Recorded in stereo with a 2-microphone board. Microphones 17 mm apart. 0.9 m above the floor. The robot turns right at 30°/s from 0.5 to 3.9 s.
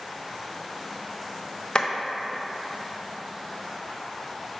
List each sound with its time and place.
1.8 s a clap: 35° left (ahead or behind), 0.6 m